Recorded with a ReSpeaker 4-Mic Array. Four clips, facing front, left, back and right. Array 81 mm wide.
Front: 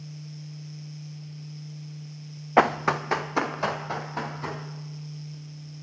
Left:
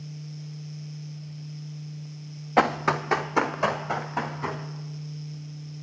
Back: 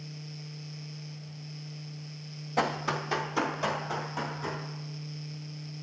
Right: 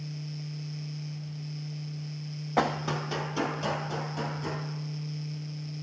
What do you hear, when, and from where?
2.6 s running footsteps: 15° left, 0.5 m; by 4.6 s 65° left, 3 m